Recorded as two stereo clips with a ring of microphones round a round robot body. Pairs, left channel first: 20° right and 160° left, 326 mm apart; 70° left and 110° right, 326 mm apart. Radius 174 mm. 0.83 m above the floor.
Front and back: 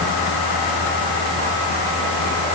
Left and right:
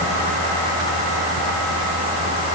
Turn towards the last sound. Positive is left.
No sound to turn to.